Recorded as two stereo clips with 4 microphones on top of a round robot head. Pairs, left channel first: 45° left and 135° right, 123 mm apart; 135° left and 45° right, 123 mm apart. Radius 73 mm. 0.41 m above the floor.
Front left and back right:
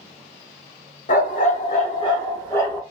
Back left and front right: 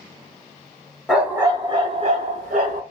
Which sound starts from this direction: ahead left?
A dog barking, at 1.1 s.